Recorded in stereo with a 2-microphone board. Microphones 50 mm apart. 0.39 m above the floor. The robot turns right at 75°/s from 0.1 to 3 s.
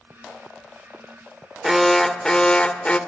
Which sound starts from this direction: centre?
An alarm, at 1.6 s.